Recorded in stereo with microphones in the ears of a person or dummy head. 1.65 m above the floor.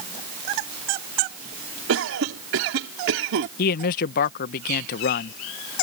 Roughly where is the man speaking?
Left.